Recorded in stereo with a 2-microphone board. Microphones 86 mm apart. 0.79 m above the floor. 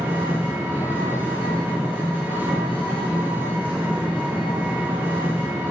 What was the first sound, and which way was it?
An engine running, 20° right (ahead or behind).